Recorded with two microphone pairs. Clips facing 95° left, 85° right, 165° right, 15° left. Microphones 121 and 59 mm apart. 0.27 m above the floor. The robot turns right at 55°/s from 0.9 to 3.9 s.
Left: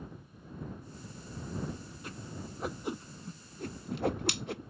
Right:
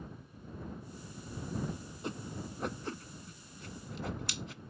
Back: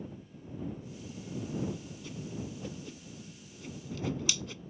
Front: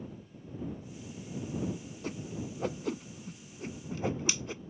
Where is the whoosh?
25° right; by 4.6 s 80° left.